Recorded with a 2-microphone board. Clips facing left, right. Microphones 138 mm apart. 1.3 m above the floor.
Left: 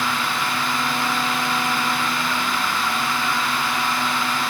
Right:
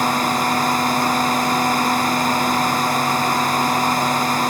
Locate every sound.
Only background noise.